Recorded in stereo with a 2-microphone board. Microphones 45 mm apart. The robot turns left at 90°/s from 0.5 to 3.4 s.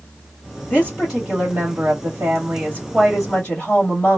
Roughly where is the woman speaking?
Ahead left.